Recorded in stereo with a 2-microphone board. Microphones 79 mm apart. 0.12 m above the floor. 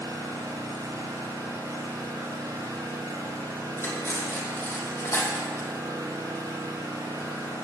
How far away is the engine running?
About 5 m.